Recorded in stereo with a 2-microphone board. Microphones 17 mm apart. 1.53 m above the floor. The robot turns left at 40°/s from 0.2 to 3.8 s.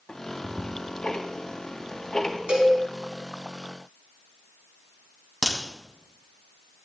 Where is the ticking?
55° left (ahead or behind), 1.1 m; by 2.4 s 20° left (ahead or behind), 1.1 m.